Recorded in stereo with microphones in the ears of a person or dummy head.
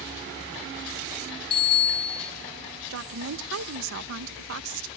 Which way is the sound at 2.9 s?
80° right.